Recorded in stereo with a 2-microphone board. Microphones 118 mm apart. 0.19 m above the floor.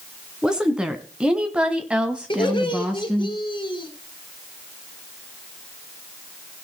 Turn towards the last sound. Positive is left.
turn(degrees=45)  # may be behind; listen again after turning